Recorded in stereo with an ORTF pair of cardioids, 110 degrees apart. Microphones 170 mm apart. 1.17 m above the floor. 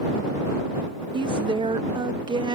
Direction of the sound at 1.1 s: 30° right.